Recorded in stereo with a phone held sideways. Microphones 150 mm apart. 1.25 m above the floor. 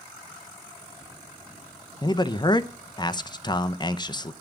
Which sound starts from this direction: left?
A man speaking, at 2.0 s.